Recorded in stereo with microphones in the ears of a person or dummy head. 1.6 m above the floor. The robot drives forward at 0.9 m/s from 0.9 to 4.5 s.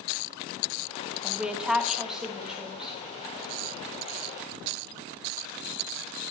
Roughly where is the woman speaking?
Centre.